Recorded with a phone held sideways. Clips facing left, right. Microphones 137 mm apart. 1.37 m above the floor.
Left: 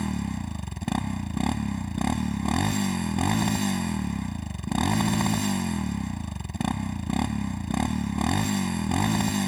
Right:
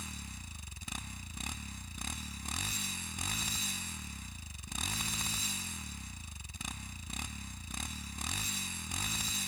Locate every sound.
0.0 s a motorcycle: 70° left (ahead or behind)